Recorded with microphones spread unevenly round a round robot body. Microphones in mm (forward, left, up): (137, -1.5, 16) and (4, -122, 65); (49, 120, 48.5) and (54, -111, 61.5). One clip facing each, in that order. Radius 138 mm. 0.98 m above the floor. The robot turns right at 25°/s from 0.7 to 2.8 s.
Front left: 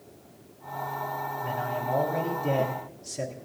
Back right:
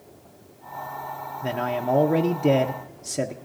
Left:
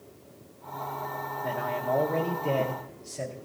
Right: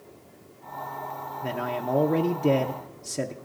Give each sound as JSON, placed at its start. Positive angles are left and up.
{"t": 1.4, "sound": "a man speaking", "azimuth_deg": -145, "distance_m": 0.7}